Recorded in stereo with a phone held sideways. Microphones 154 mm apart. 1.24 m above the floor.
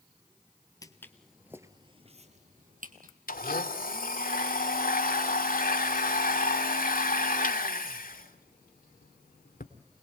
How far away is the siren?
I don't hear a siren.